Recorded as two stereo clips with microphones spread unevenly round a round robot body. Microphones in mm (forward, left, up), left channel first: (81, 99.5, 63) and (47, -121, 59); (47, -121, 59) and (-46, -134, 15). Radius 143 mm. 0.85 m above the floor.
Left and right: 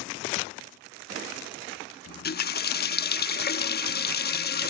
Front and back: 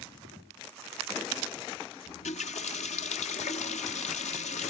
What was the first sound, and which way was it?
A running tap, 35° left.